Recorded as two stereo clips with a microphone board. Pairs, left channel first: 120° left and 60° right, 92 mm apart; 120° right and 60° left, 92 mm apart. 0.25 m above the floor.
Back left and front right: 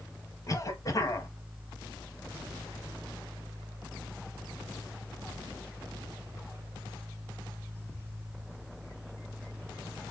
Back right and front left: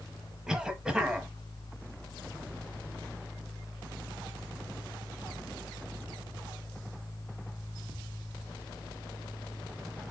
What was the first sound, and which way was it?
A cough, 140° left.